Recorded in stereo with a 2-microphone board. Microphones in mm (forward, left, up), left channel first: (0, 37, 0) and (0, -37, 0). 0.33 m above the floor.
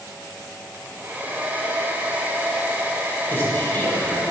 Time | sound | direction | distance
0.7 | a hair dryer | 25° right (ahead or behind) | 0.6 m
3.3 | a man speaking | 25° left (ahead or behind) | 1.3 m